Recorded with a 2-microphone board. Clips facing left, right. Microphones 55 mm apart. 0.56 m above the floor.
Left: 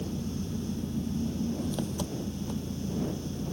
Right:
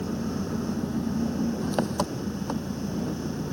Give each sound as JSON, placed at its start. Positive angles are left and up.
{"t": 0.0, "sound": "an engine running", "side_deg": -60}